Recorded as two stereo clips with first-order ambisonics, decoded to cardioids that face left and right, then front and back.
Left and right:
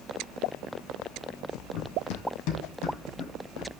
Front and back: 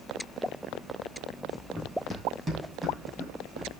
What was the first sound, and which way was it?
Running footsteps, 90° left.